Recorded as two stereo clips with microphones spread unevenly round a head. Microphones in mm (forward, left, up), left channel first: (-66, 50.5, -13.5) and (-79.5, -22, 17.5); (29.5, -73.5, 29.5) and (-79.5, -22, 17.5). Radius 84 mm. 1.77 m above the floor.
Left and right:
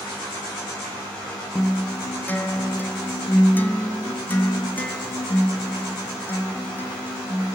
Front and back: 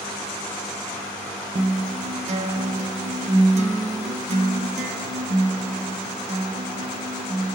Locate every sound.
1.6 s a guitar: 160° left, 0.6 m